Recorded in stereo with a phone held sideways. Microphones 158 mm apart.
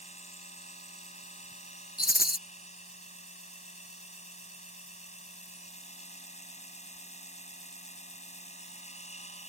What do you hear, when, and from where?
0.0 s a machine running: 45° left (ahead or behind)
2.0 s a rattle: 70° left (ahead or behind)